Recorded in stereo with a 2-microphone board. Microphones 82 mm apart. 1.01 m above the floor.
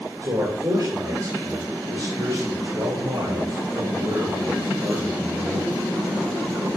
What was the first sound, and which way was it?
A man speaking, 65° right (ahead or behind).